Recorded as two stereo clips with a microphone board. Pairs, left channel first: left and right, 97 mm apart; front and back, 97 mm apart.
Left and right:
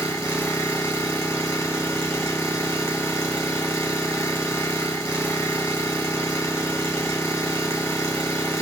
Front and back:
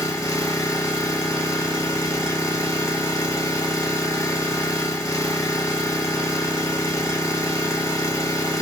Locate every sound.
0.0 s an engine running: 40° left, 1.5 m